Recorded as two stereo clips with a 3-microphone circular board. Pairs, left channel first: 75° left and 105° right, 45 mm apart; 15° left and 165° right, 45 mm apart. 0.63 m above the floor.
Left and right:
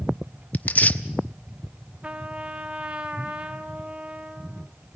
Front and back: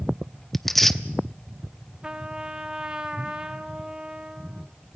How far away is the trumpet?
About 0.9 m.